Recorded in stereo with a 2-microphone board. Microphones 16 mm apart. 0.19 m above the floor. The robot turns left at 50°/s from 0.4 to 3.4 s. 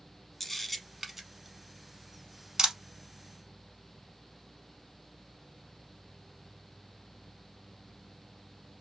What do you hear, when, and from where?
0.4 s a camera shutter: 15° left (ahead or behind), 0.7 m; by 2.8 s 50° right (ahead or behind), 0.7 m